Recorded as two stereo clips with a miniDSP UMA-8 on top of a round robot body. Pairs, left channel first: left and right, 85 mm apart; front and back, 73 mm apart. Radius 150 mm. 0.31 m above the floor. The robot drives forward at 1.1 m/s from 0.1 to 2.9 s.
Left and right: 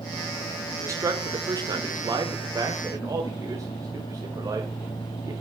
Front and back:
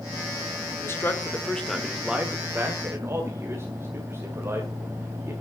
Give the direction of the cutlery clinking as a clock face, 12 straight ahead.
I don't hear cutlery clinking.